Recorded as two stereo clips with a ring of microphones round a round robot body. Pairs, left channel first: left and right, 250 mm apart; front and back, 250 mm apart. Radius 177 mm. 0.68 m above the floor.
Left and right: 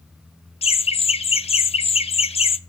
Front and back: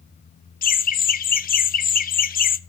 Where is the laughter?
35° left, 0.8 m.